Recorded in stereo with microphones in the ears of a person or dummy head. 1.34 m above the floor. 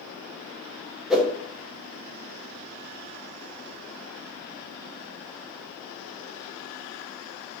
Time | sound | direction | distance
1.1 | a whoosh | 5° right (ahead or behind) | 0.5 m